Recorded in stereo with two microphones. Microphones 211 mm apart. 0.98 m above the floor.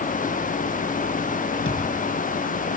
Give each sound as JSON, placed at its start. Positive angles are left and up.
{"t": 1.6, "sound": "a thud", "side_deg": 80, "distance_m": 4.0}